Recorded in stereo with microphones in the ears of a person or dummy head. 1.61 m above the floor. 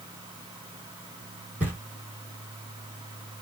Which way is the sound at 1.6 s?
10° right (ahead or behind).